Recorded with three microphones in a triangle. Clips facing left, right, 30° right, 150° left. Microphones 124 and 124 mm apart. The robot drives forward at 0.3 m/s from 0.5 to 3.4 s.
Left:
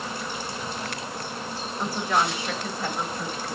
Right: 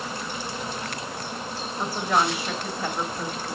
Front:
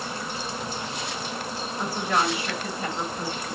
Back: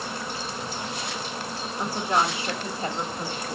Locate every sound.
1.8 s a woman speaking: 170° right, 1.4 m; by 3.5 s 175° right, 1.7 m